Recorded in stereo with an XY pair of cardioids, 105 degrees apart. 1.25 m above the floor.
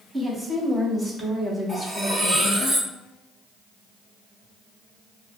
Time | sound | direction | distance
0.1 | a woman speaking | 20° right | 1.9 m
1.7 | cutlery clinking | 5° left | 1.9 m